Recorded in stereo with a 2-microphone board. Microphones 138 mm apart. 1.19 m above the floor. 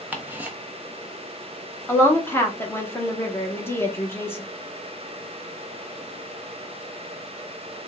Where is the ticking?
15° right (ahead or behind), 0.8 m.